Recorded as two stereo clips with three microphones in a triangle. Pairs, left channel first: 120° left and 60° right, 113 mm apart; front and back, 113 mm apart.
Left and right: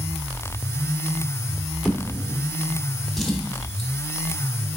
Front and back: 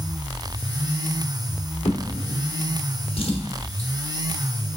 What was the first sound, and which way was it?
A drawer, 35° left.